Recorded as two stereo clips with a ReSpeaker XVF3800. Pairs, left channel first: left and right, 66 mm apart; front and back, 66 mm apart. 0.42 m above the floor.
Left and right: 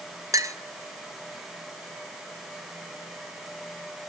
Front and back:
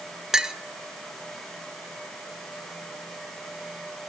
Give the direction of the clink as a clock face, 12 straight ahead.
3 o'clock.